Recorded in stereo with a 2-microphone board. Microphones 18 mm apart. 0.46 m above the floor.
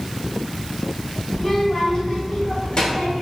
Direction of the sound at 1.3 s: 20° left (ahead or behind).